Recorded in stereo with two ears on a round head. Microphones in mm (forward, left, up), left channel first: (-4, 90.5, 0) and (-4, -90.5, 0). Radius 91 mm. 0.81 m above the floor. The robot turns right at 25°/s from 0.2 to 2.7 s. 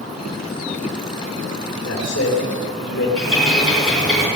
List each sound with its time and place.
1.8 s a man speaking: 55° left (ahead or behind), 3 m; by 3.1 s 70° left (ahead or behind), 3 m
3.2 s a bird: 5° left (ahead or behind), 3.5 m